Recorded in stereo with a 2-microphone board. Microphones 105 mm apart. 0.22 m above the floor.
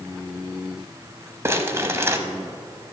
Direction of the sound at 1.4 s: 25° right (ahead or behind).